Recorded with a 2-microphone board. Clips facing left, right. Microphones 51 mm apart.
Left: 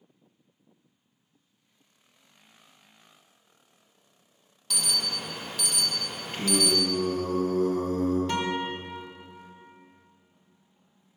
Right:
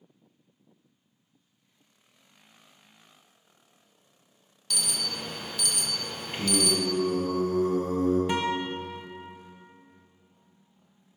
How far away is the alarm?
About 0.7 m.